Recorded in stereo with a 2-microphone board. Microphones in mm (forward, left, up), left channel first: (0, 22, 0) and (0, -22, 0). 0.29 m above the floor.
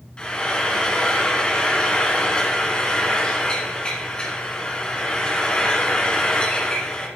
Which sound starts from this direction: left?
Frying, at 0.2 s.